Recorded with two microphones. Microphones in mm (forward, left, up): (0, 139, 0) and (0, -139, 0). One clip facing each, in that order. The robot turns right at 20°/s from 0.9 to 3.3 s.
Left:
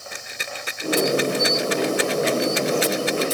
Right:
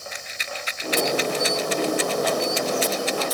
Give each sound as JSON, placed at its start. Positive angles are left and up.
{"t": 0.1, "sound": "a rattle", "side_deg": 60}